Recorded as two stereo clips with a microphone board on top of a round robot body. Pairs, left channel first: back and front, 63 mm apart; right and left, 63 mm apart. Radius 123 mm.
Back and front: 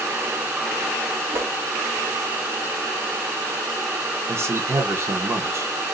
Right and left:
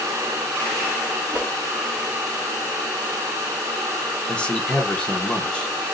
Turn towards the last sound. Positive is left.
turn(degrees=-20)